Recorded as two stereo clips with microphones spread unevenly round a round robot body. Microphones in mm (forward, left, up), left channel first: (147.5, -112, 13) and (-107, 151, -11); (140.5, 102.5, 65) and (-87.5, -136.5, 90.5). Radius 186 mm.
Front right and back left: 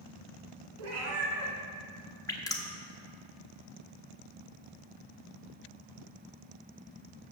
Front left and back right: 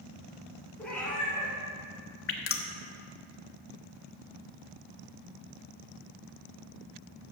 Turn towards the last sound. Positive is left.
turn(degrees=35)